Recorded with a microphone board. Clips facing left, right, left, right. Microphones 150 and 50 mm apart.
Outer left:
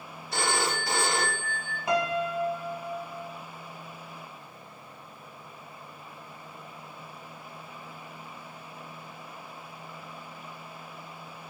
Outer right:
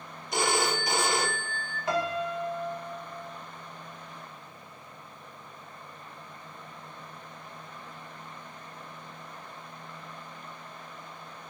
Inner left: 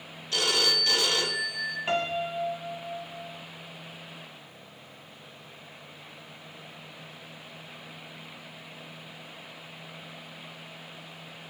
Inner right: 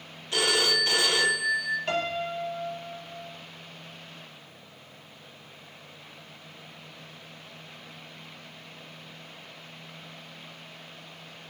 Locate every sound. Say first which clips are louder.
0.3 s a phone ringing: outer right 2 dB, inner right 2 dB; 20° right (ahead or behind), 0.6 m
1.9 s a piano: outer left 2 dB, inner left 1 dB; 15° left (ahead or behind), 0.6 m